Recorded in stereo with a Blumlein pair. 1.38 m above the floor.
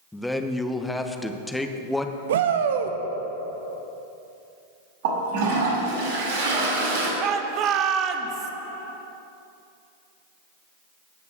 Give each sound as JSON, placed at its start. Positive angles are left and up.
{"t": 0.1, "sound": "a man speaking", "azimuth_deg": 5, "distance_m": 1.0}
{"t": 2.3, "sound": "a shout", "azimuth_deg": -60, "distance_m": 1.1}
{"t": 5.0, "sound": "a toilet flushing", "azimuth_deg": -55, "distance_m": 4.5}
{"t": 7.2, "sound": "a shout", "azimuth_deg": -35, "distance_m": 1.2}